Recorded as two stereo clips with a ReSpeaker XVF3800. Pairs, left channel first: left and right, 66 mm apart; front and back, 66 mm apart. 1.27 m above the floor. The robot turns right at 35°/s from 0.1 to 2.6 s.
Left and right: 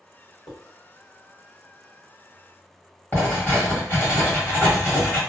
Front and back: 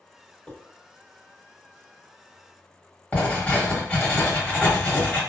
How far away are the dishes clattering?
About 0.9 m.